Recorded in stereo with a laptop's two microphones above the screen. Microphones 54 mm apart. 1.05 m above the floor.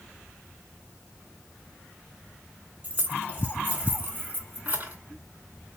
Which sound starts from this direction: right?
Keys jangling, at 2.8 s.